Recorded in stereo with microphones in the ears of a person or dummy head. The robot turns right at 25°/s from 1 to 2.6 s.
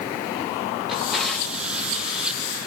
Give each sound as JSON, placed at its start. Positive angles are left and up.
{"t": 0.9, "sound": "a drawer", "side_deg": 0, "distance_m": 1.5}